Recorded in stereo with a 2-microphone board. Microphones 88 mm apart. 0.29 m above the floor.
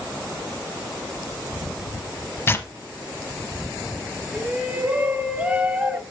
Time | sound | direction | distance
2.5 | tearing paper | 30° left (ahead or behind) | 0.7 m
4.3 | a shout | 20° right (ahead or behind) | 1.1 m